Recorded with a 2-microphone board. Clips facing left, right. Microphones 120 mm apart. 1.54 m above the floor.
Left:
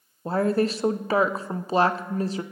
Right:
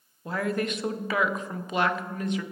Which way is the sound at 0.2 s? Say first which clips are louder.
Left 6 dB; 35° left (ahead or behind).